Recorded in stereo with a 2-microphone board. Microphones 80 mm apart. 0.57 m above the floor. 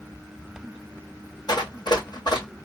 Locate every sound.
1.5 s running footsteps: 60° left (ahead or behind), 1.4 m